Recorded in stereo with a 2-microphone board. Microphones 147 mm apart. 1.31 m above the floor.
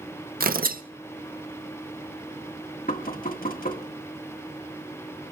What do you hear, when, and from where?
0.4 s tearing paper: 80° right, 0.7 m
2.9 s knocking: 75° left (ahead or behind), 1.2 m